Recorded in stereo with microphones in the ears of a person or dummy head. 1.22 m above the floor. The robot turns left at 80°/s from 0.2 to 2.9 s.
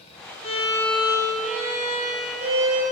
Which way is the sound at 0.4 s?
35° left.